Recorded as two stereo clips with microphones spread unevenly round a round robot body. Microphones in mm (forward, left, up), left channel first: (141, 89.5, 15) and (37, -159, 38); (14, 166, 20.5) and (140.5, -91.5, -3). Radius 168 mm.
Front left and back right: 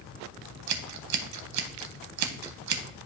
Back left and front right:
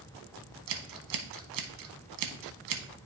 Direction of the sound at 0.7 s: 90° right.